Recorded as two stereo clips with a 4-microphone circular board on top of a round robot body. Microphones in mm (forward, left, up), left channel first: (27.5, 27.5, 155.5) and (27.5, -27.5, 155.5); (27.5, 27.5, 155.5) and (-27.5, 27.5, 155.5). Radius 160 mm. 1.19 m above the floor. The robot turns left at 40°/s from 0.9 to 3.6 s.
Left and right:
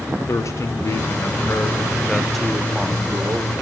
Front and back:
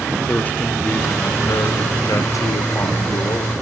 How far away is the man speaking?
About 1.3 m.